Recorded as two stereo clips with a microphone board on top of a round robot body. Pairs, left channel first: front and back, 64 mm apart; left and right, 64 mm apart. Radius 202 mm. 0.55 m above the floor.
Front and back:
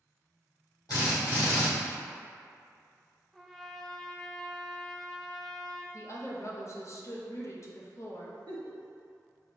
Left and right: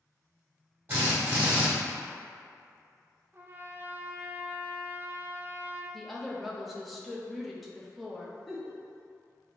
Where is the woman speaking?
Straight ahead, 0.8 m.